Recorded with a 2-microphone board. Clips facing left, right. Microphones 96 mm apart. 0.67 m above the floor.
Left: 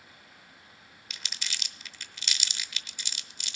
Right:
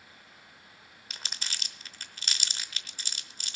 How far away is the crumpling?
About 0.8 m.